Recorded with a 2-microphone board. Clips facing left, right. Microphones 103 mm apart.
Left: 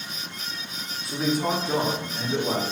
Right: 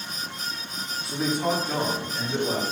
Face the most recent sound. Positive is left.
turn(degrees=40)  # may be behind; listen again after turning